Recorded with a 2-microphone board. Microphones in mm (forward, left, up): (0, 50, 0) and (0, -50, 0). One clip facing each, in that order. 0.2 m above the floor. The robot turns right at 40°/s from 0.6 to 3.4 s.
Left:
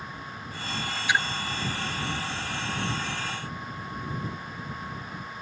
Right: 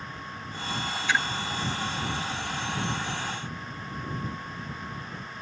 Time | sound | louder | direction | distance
1.1 | a splash | left 1 dB | 15° left (ahead or behind) | ?